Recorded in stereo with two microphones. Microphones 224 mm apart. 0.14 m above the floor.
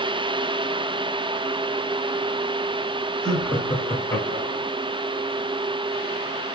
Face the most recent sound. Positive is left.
turn(degrees=20)  # may be behind; listen again after turning